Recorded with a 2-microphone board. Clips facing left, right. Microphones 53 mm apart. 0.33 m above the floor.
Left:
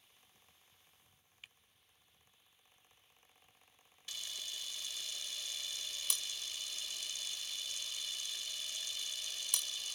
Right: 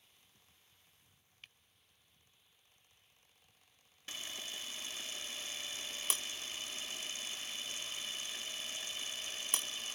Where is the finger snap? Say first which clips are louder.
Left 1 dB; 5° left (ahead or behind).